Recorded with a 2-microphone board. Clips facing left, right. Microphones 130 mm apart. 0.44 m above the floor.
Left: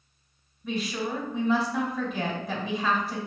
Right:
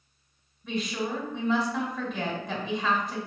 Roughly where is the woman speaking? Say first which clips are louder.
Even; centre.